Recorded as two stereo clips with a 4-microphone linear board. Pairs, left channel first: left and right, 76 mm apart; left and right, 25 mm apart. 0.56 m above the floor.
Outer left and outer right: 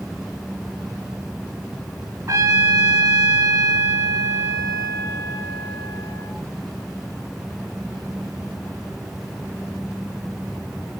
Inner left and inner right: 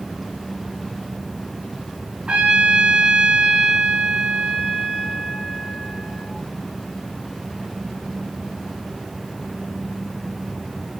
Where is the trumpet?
40° right (ahead or behind), 2.5 m.